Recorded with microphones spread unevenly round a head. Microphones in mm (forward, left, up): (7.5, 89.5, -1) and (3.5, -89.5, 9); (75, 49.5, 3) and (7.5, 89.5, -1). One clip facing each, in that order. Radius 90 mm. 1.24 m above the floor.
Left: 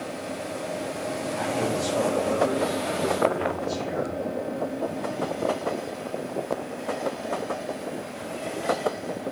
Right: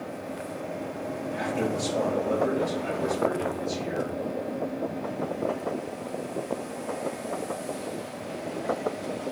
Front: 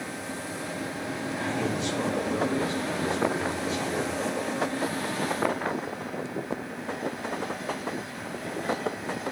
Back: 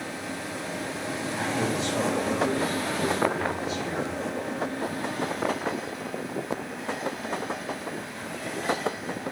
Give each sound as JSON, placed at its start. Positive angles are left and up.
{"t": 1.3, "sound": "a man speaking", "azimuth_deg": -160, "distance_m": 5.5}